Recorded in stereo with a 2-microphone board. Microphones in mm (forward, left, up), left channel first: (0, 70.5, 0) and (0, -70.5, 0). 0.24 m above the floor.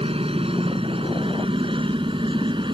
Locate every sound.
0.0 s a helicopter: 45° right (ahead or behind); by 2.8 s 35° right (ahead or behind)